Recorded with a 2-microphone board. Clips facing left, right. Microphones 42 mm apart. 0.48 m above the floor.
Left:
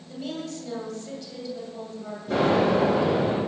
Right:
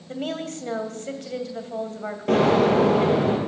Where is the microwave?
No microwave in this recording.